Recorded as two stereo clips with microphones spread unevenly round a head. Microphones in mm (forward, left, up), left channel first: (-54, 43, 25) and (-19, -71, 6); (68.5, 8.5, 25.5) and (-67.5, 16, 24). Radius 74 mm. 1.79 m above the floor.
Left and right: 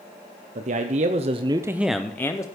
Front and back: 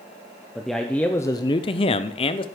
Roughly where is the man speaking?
Right.